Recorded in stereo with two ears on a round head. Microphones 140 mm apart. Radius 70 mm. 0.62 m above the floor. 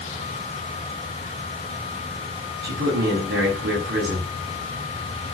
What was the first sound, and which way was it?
A man speaking, 75° right (ahead or behind).